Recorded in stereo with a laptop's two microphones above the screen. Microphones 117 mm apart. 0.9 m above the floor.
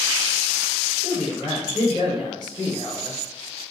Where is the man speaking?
35° left (ahead or behind), 1.0 m.